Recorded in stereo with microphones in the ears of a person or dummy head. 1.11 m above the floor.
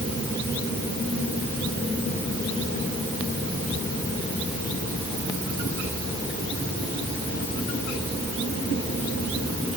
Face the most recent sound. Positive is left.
No sound to turn to.